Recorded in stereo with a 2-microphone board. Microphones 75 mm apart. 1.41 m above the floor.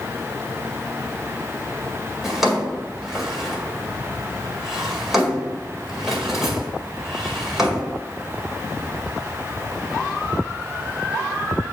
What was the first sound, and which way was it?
A drawer, 5° right (ahead or behind).